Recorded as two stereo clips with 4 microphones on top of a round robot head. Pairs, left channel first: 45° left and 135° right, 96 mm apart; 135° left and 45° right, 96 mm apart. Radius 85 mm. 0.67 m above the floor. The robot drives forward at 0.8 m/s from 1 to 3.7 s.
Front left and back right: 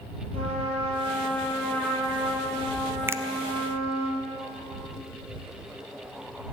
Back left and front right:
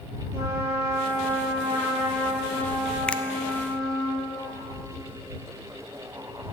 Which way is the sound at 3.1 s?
155° right.